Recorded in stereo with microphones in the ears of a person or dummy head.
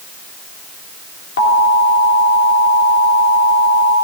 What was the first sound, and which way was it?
An alarm, 60° left (ahead or behind).